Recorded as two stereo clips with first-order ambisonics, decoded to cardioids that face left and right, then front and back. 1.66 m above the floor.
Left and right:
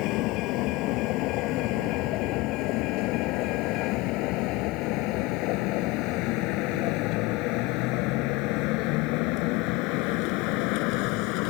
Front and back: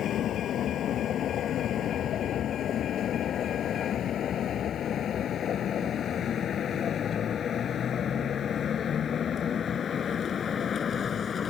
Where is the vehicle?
55° left; by 11.5 s 70° left.